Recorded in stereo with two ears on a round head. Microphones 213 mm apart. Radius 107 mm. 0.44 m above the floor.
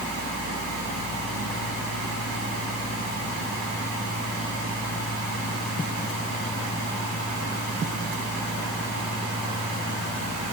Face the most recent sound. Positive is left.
No sound to turn to.